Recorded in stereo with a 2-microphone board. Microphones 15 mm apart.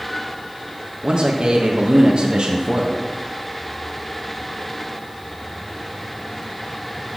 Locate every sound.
1.0 s a man speaking: 65° right (ahead or behind), 1.5 m